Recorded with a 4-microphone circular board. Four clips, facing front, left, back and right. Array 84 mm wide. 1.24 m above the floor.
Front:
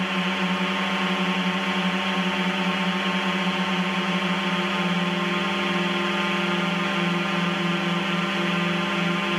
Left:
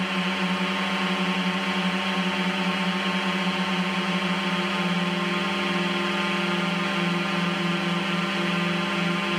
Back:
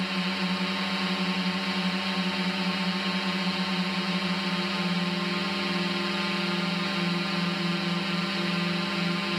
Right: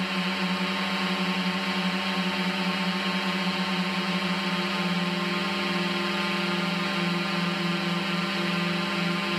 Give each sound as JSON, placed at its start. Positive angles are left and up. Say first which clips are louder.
{"t": 0.0, "sound": "a drone", "louder": "left 2 dB, front 5 dB", "azimuth_deg": 20}